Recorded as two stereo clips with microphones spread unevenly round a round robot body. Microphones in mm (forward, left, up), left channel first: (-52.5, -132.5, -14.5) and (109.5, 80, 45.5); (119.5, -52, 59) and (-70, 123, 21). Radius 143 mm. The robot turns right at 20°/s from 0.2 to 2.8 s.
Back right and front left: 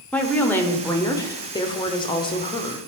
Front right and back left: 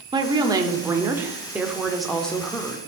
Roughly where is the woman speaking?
Behind.